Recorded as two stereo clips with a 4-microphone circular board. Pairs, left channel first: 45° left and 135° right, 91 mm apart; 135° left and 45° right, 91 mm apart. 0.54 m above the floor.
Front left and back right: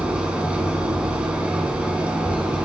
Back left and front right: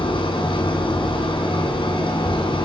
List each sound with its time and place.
0.0 s an engine running: 150° left, 2.5 m